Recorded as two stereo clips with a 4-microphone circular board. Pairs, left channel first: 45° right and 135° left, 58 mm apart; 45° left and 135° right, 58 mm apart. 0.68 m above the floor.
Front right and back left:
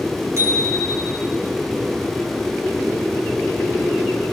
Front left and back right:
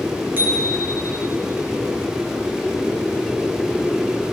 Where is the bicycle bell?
170° left, 9 m.